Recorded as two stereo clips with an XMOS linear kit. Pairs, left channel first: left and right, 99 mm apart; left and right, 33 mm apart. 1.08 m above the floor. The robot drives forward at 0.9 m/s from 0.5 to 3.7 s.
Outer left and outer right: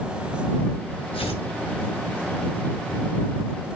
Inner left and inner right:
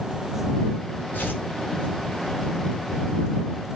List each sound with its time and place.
1.1 s tearing paper: 65° left (ahead or behind), 4 m; by 1.4 s 70° left (ahead or behind), 4 m